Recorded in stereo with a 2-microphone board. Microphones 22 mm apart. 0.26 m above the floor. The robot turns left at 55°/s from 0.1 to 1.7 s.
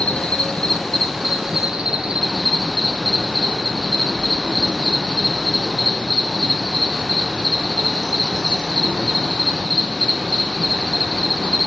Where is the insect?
55° left, 0.9 m; by 11.7 s 30° right, 0.9 m.